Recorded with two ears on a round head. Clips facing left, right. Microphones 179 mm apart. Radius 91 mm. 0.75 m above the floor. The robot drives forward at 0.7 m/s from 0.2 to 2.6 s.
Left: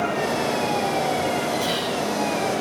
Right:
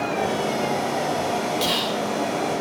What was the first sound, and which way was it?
Whispering, 75° right (ahead or behind).